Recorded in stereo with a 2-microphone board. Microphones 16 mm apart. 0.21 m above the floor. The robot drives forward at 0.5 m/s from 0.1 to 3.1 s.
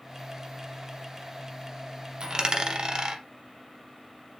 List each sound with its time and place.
2.2 s a dropped coin: 45° right (ahead or behind), 0.8 m